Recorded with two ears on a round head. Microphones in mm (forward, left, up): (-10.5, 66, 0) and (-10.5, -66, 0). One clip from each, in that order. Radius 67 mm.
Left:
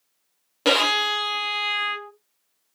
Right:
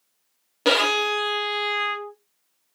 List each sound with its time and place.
0.7 s a violin: 10° left (ahead or behind), 0.7 m